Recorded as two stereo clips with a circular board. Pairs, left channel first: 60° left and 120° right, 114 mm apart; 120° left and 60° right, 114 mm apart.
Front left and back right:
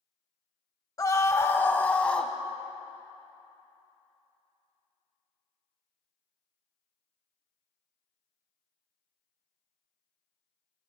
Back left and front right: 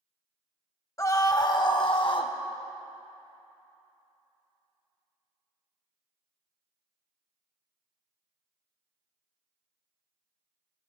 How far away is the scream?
About 1.1 m.